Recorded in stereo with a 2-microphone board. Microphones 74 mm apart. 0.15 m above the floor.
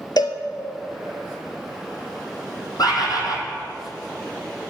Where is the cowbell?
65° left (ahead or behind), 0.7 m.